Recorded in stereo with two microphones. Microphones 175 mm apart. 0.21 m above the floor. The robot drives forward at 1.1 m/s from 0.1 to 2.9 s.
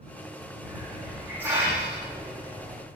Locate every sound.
0.6 s a hiss: 10° right (ahead or behind), 9.5 m